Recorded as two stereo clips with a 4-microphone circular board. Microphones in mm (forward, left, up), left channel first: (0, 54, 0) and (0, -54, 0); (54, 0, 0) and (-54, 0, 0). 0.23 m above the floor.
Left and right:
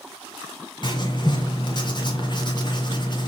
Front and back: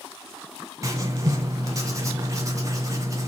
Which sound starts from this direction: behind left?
Writing, at 0.8 s.